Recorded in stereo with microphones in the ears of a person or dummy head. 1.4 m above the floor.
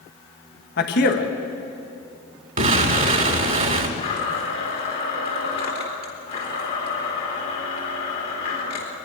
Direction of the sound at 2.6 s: 40° right (ahead or behind).